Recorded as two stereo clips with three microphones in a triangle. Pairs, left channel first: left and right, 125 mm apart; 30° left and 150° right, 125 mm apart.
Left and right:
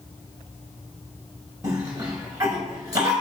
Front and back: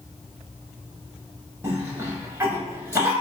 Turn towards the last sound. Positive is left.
turn(degrees=-105)